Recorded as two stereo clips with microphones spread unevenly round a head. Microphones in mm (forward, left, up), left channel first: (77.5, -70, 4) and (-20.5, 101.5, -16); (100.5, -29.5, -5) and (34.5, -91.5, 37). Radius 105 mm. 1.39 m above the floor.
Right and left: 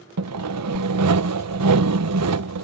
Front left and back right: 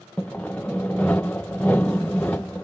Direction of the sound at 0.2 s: 130° left.